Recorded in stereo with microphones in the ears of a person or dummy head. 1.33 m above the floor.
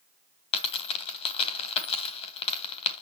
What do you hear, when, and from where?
0.5 s a dropped coin: 30° left (ahead or behind), 1.6 m